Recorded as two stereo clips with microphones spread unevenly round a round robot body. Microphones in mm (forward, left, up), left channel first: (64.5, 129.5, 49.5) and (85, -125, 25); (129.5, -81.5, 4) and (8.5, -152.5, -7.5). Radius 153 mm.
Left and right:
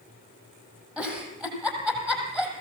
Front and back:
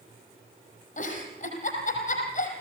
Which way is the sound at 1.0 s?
Straight ahead.